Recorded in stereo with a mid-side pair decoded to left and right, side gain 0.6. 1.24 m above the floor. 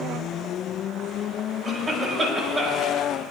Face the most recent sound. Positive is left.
turn(degrees=-30)